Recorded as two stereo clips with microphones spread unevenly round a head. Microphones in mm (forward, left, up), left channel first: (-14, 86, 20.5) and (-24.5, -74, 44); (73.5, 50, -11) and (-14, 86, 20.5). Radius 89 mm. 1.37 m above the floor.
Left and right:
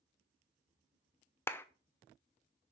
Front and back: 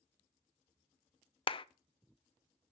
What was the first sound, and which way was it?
A clap, 10° left.